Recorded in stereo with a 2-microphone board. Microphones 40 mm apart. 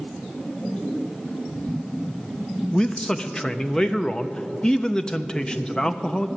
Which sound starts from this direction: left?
A man speaking, at 2.7 s.